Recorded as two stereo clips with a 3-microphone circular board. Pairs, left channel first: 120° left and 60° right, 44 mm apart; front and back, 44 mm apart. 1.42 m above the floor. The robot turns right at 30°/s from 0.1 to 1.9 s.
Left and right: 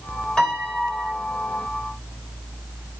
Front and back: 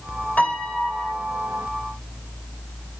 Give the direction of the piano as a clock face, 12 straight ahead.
10 o'clock.